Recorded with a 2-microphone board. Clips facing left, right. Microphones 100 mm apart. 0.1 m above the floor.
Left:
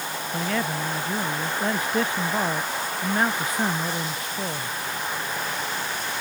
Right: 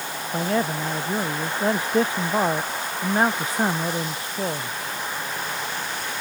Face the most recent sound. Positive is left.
turn(degrees=-30)  # may be behind; listen again after turning